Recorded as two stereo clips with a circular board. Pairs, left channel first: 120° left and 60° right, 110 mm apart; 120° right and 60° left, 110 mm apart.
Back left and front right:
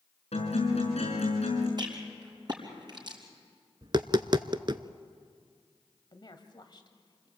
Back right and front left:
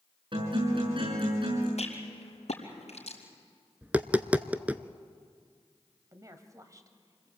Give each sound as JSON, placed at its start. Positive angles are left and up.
{"t": 0.3, "sound": "a guitar", "azimuth_deg": 100, "distance_m": 6.5}
{"t": 1.8, "sound": "a rattle", "azimuth_deg": -110, "distance_m": 4.0}
{"t": 3.8, "sound": "tapping", "azimuth_deg": -15, "distance_m": 0.7}
{"t": 6.1, "sound": "a woman speaking", "azimuth_deg": 105, "distance_m": 1.9}